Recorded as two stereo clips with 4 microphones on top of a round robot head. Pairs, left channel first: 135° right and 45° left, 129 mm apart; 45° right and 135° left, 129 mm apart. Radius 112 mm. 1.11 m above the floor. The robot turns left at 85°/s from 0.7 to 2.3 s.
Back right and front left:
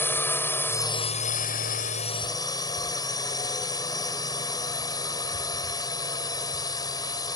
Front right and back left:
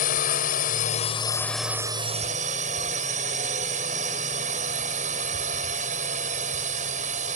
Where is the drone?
60° right; by 7.4 s 165° left.